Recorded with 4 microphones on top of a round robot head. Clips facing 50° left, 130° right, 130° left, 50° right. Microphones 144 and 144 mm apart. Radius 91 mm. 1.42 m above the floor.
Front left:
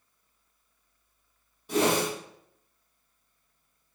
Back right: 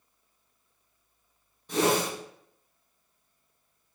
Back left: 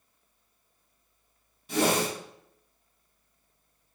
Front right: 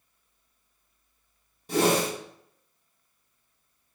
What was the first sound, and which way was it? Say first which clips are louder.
A whoosh: even, front right 2 dB; 25° right.